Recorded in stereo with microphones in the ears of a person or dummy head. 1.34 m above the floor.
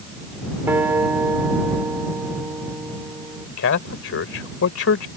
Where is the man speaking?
75° left (ahead or behind).